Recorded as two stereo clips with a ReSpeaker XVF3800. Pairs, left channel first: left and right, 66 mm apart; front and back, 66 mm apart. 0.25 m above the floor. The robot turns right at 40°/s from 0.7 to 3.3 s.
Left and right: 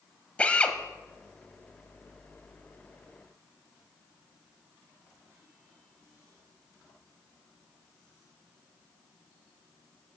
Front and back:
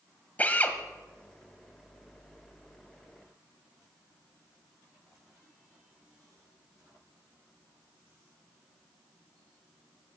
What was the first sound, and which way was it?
A drill, 35° left.